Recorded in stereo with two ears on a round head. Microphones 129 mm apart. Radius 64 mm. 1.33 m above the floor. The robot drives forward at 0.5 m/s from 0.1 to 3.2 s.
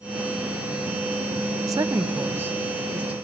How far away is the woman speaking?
About 0.5 m.